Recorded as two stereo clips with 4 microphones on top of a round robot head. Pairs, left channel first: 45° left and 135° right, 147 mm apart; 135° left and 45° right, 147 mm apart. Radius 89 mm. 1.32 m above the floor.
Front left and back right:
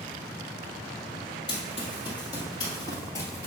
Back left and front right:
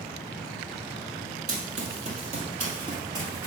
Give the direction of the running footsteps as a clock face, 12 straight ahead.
12 o'clock.